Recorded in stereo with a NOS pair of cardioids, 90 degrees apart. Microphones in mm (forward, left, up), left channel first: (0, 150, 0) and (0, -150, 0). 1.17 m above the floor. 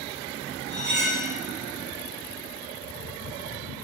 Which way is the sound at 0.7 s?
40° right.